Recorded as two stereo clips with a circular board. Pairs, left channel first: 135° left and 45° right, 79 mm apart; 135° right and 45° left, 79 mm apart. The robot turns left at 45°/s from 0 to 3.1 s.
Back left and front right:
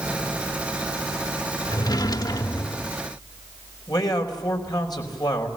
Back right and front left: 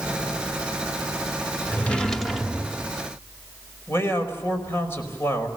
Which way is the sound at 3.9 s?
165° left.